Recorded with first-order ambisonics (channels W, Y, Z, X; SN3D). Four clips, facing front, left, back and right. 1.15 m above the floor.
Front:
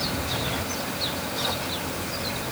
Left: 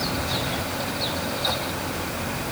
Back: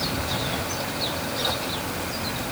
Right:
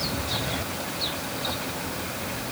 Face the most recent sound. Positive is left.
No sound to turn to.